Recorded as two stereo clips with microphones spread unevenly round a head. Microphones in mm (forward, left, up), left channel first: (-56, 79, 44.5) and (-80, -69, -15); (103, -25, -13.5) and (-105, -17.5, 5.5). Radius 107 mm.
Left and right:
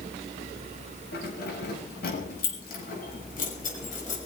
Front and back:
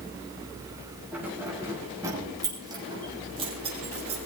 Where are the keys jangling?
95° left, 6.5 m; by 4.3 s 115° left, 6.5 m.